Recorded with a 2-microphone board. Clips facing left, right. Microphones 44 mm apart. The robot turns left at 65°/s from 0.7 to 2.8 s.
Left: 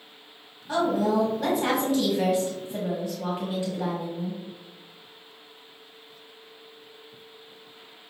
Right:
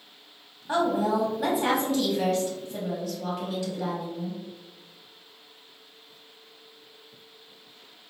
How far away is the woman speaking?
About 1.3 m.